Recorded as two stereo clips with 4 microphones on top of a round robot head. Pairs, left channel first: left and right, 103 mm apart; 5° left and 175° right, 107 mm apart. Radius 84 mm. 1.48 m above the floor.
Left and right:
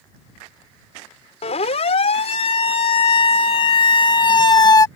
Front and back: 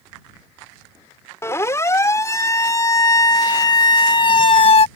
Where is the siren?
70° left; by 4.9 s 35° left.